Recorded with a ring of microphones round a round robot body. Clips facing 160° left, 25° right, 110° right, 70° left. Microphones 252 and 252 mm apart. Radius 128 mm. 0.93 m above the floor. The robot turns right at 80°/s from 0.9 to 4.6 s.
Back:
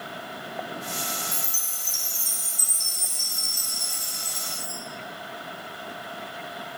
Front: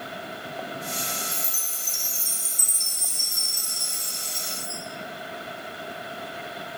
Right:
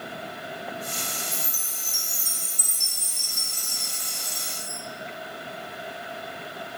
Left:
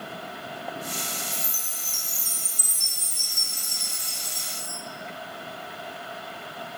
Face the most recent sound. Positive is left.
turn(degrees=80)